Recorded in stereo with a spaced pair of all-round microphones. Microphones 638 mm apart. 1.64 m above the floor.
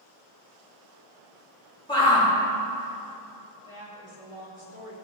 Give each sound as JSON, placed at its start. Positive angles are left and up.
{"t": 1.9, "sound": "a shout", "side_deg": 5, "distance_m": 4.0}
{"t": 3.7, "sound": "a woman speaking", "side_deg": 55, "distance_m": 3.5}